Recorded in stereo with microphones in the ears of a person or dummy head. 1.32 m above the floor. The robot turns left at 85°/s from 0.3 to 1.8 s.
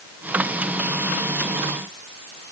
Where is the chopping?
No chopping in this recording.